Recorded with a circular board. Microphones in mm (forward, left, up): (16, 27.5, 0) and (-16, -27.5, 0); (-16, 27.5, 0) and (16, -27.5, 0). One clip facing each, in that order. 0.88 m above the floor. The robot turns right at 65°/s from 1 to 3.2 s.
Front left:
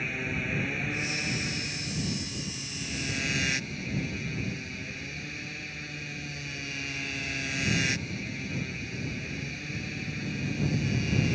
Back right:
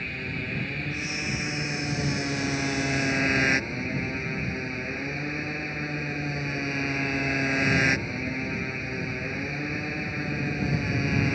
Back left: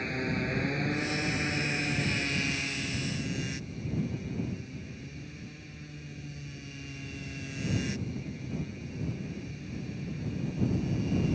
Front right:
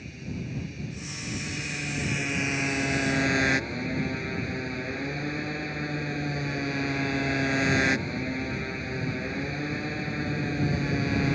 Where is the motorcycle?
145° left; by 11.4 s 75° right.